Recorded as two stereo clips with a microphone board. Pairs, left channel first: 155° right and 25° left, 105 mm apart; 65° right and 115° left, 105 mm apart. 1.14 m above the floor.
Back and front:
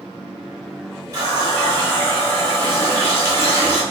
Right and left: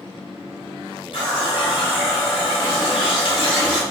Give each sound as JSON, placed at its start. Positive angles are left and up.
{"t": 1.1, "sound": "a running tap", "azimuth_deg": -35, "distance_m": 1.2}